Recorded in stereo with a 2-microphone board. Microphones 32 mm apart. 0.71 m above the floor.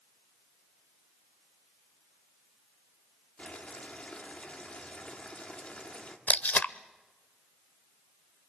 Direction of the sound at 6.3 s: 70° left (ahead or behind).